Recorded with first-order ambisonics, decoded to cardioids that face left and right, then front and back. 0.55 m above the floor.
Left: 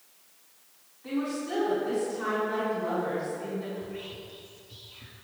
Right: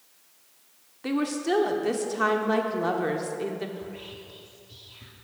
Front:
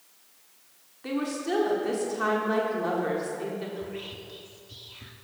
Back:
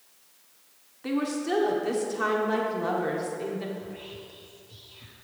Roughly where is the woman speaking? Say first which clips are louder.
Right 5 dB, back 1 dB; right.